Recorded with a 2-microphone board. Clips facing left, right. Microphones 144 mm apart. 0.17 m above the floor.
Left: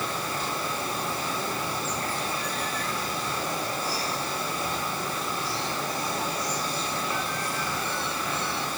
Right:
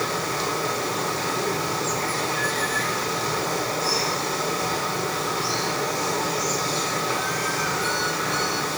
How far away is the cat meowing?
I don't hear a cat meowing.